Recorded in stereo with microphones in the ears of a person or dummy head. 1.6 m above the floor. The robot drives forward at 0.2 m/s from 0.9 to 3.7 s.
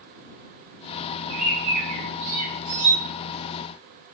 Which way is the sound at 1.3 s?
50° right (ahead or behind).